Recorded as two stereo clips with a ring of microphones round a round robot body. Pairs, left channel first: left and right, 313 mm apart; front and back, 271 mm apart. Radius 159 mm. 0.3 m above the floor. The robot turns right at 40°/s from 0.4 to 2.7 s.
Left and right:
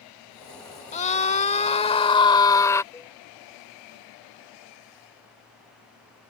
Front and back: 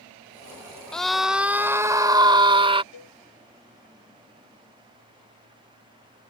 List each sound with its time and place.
0.9 s a scream: 85° left; by 2.8 s 155° left
2.9 s a cowbell: 10° left